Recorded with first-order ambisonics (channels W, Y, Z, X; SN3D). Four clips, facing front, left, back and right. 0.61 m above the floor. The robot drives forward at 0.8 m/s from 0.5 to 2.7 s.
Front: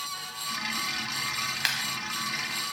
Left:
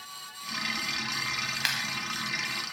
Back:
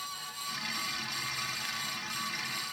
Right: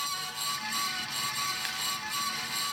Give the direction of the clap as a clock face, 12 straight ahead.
11 o'clock.